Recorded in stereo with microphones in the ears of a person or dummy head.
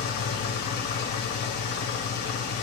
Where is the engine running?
55° left (ahead or behind), 0.7 m.